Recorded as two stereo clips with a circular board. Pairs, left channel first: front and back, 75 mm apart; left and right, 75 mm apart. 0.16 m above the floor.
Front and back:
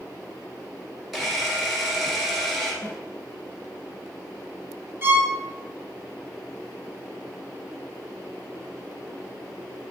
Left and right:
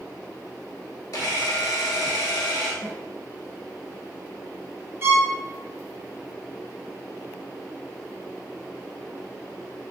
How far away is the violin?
About 0.9 m.